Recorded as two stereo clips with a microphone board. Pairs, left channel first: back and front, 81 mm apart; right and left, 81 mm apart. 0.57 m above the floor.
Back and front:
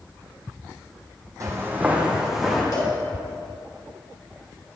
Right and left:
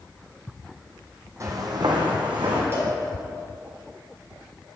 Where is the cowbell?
140° left, 2.0 m.